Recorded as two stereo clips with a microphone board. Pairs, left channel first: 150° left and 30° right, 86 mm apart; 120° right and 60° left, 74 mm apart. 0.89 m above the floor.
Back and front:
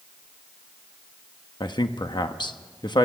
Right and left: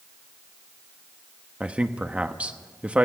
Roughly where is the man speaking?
Behind left.